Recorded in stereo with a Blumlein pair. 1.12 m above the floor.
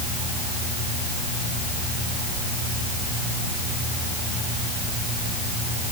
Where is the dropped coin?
No dropped coin in this recording.